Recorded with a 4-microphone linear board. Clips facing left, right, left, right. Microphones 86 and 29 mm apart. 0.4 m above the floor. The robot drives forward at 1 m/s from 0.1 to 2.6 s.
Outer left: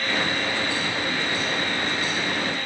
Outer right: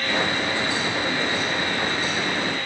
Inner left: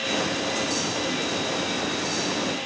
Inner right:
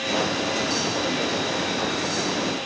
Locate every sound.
Only background noise.